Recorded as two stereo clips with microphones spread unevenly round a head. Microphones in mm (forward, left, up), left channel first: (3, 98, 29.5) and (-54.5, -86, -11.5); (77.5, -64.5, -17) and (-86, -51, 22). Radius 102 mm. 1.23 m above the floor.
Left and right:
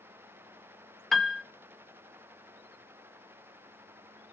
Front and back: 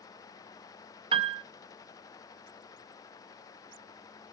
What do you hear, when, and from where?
1.1 s a piano: 150° left, 0.6 m